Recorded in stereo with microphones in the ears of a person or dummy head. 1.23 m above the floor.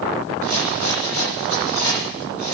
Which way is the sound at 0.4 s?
55° left (ahead or behind).